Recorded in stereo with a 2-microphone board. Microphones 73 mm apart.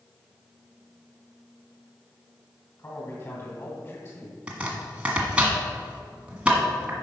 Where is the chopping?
15° right (ahead or behind), 1.5 m.